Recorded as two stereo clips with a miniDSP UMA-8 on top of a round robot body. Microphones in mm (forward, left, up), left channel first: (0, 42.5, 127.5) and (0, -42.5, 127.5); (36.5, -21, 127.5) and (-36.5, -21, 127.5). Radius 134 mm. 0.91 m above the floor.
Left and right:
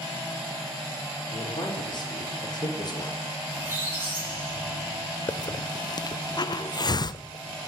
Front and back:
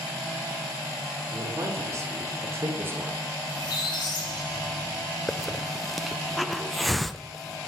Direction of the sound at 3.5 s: 25° right.